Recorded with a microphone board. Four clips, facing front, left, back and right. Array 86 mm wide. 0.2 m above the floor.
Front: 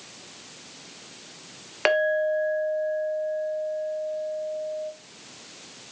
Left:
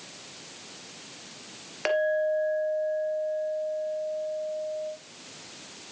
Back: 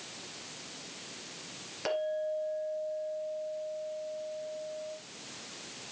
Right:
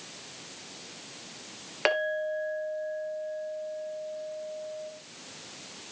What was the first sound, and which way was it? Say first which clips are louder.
A clink: left 4 dB, front 10 dB; 15° right.